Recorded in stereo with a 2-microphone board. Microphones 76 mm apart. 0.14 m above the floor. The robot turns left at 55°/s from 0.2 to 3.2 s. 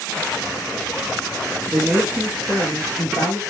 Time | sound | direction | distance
1.7 | a man speaking | 155° right | 3 m